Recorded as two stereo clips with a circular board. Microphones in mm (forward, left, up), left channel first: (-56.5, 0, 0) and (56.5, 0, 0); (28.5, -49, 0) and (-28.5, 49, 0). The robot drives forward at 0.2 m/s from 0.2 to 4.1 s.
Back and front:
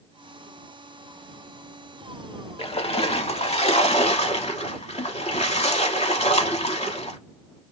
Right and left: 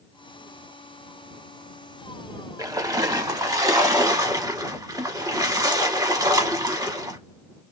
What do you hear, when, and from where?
2.6 s a splash: 170° left, 0.5 m; by 7.2 s 175° left, 0.8 m